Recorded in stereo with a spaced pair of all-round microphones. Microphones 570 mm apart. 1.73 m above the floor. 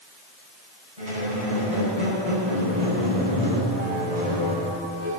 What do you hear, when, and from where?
1.0 s a squeak: 80° right, 5.5 m